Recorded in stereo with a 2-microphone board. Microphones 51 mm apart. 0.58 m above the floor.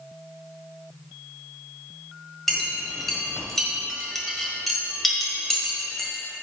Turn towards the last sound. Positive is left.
turn(degrees=0)  # may be behind; listen again after turning